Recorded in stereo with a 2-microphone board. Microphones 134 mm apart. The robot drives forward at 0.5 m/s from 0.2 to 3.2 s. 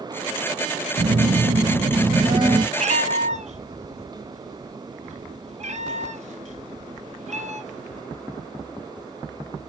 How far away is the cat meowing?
About 1.4 m.